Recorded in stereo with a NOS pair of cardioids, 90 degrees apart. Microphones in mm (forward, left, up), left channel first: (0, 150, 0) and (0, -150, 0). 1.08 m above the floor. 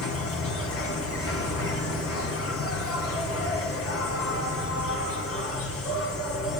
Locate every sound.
0.0 s an insect: 45° left, 2 m